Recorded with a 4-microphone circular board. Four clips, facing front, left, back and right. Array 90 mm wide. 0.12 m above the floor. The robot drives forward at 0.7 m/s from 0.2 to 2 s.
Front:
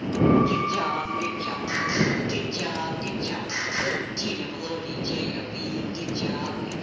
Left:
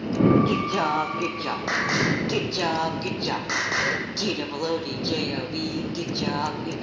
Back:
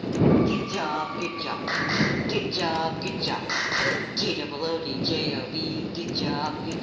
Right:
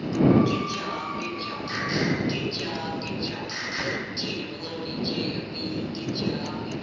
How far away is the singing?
About 1.7 m.